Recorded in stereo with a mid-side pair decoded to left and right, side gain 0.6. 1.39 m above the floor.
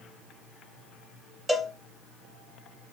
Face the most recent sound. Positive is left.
turn(degrees=-5)